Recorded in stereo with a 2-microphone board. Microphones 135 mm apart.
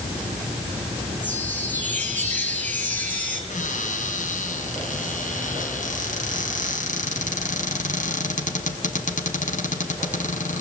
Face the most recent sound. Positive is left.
turn(degrees=70)  # may be behind; listen again after turning